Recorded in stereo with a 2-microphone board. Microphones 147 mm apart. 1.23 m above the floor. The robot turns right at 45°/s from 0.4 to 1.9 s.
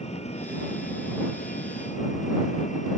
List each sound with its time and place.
0.0 s an engine running: 50° left; by 3.0 s 120° left